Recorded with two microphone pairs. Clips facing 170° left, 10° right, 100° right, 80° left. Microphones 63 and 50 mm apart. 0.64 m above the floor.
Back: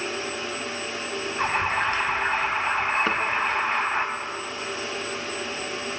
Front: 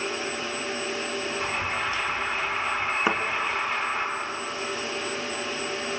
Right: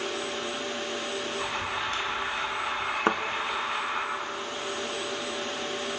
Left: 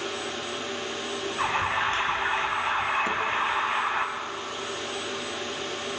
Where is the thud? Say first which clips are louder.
Even, right 2 dB; 90° right, 1.1 m.